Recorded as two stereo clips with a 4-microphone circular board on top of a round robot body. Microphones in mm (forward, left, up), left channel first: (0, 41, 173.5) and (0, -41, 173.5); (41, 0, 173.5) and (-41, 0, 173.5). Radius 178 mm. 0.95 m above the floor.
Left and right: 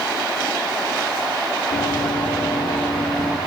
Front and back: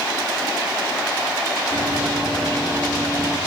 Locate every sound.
1.7 s running footsteps: 105° left, 7 m; by 3.4 s 95° left, 6.5 m